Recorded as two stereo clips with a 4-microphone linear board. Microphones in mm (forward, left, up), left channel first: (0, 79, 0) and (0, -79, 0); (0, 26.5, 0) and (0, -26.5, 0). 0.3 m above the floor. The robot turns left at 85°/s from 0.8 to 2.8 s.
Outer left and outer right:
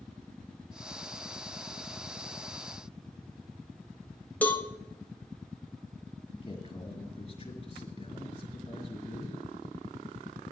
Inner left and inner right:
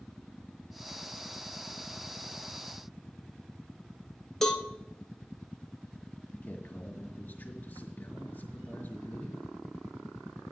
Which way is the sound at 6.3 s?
40° left (ahead or behind).